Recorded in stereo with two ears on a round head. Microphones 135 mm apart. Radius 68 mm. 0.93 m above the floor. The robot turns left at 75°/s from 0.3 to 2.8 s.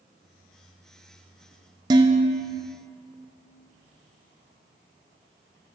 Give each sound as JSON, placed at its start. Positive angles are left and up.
{"t": 1.9, "sound": "dishes clattering", "azimuth_deg": -25, "distance_m": 0.6}